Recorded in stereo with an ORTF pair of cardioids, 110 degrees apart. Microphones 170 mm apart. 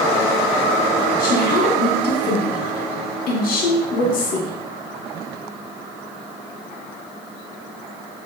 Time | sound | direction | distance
1.2 | a woman speaking | 60° left | 1.1 m